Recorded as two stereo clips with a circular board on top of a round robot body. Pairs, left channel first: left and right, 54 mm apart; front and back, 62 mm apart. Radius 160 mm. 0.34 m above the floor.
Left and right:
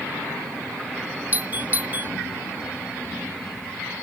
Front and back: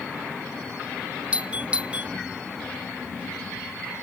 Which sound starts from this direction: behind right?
A doorbell, at 1.3 s.